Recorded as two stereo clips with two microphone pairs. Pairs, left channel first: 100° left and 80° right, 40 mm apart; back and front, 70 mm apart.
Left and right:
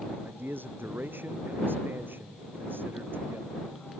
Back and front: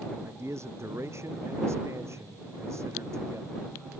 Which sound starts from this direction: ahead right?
A man speaking, at 0.2 s.